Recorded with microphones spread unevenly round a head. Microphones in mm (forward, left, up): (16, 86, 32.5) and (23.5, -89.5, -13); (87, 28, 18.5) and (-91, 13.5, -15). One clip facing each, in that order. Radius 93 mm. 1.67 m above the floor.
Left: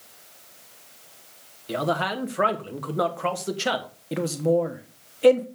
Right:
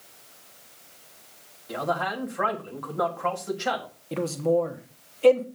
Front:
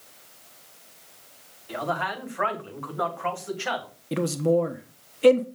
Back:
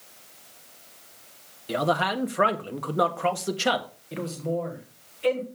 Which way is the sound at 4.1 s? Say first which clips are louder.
Left 1 dB, front 7 dB; 20° left.